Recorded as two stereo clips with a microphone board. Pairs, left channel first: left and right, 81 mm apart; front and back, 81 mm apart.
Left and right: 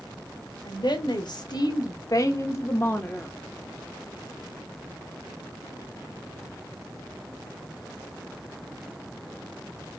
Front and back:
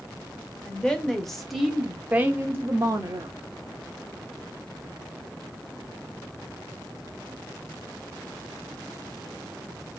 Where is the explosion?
No explosion in this recording.